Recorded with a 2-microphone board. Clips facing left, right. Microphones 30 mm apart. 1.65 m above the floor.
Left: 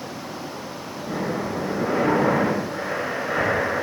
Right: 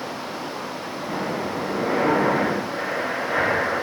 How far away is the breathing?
About 5.5 m.